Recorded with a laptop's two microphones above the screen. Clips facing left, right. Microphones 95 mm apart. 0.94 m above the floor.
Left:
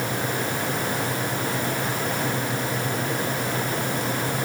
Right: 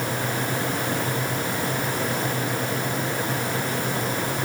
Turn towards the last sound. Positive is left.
No sound to turn to.